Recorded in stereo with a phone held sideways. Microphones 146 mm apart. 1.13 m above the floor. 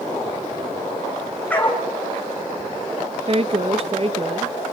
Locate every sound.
1.5 s a dog barking: 10° left (ahead or behind), 4.5 m
3.3 s a woman speaking: 40° right (ahead or behind), 0.9 m